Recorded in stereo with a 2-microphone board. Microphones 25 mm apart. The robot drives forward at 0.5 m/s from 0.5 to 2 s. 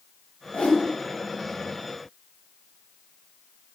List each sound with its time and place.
0.5 s a whoosh: 60° left (ahead or behind), 0.6 m; by 0.8 s 70° left (ahead or behind), 0.6 m